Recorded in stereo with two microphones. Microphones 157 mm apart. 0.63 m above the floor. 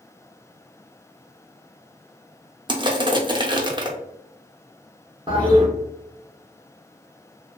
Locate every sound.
2.7 s crushing: 30° right (ahead or behind), 0.5 m
5.3 s a toilet flushing: 30° right (ahead or behind), 0.7 m